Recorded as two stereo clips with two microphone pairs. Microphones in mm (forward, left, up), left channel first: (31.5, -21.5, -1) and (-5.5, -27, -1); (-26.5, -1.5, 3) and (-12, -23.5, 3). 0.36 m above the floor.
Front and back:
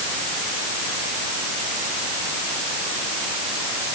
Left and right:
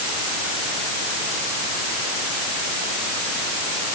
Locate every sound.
Only background noise.